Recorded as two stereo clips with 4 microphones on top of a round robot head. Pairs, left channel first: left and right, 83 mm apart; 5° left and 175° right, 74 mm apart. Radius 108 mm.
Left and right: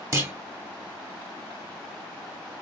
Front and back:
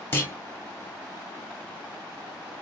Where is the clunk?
50° right, 1.3 m.